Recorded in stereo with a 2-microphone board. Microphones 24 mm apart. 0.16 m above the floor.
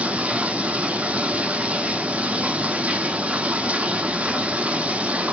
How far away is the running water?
About 0.8 m.